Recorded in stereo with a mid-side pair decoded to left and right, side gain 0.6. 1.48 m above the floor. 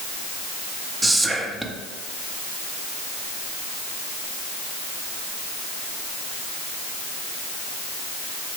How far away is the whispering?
About 0.7 m.